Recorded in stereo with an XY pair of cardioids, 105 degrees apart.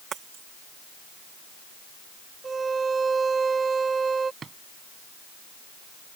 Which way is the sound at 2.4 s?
30° right.